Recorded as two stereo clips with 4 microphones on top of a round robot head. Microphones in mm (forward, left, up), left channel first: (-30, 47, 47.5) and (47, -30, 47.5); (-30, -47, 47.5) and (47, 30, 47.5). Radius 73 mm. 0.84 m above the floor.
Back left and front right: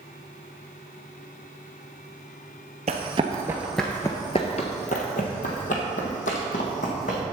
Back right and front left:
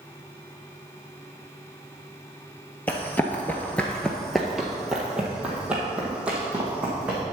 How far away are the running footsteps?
About 1.0 m.